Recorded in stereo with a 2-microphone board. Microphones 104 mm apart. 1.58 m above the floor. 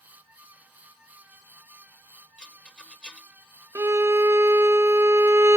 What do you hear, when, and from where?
2.4 s a rattle: 5° left (ahead or behind), 1.1 m
3.8 s a violin: 25° right (ahead or behind), 0.5 m